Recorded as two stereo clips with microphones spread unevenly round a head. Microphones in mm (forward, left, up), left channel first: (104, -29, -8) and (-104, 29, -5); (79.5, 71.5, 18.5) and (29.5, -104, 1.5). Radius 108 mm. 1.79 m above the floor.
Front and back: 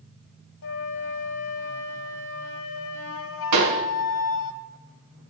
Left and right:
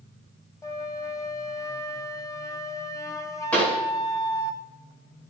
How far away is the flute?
About 0.9 m.